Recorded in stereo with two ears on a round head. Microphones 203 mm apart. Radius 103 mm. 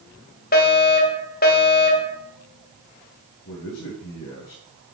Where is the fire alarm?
45° left (ahead or behind), 2.5 m.